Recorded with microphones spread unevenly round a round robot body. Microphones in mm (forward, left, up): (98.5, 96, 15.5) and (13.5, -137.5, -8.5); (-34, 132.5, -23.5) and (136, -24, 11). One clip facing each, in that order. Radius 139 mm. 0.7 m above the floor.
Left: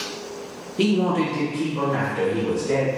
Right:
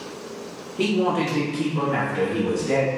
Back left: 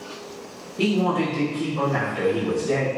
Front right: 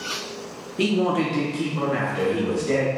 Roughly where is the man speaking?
Ahead left.